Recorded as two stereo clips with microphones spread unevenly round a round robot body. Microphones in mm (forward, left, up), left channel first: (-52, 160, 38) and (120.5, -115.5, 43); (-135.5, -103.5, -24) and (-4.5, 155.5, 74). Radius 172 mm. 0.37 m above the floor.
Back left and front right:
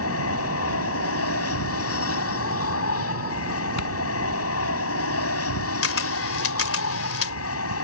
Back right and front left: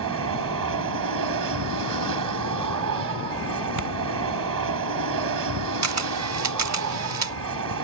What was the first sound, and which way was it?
An aircraft, 80° left.